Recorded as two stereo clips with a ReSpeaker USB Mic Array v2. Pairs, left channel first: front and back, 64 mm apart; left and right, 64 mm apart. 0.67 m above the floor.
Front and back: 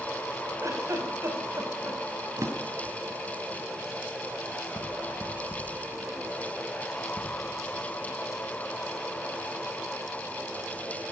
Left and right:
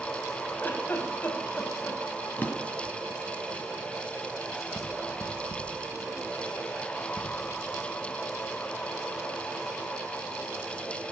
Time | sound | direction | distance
0.6 | a giggle | 150° left | 5.5 m
2.4 | a drawer | 150° left | 2.5 m